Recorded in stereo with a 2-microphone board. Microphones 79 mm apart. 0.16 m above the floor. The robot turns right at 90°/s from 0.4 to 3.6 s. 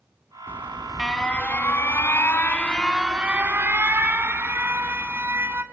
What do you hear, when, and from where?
0.5 s an alarm: 45° right, 1.3 m; by 5.6 s 125° right, 1.3 m